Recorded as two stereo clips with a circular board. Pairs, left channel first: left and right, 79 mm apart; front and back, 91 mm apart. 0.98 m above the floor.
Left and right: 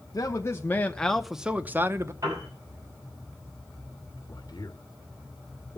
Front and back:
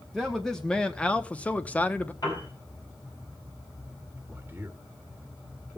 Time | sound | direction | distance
0.1 | a man speaking | 85° left | 1.0 m
2.2 | a piano | 45° right | 7 m
4.2 | a man speaking | 115° left | 1.3 m